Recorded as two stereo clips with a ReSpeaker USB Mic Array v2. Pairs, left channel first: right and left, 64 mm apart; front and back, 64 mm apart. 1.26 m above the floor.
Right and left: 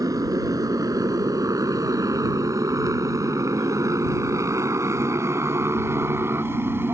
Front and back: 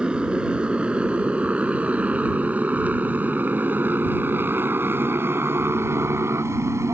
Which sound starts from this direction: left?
A motorcycle, at 0.0 s.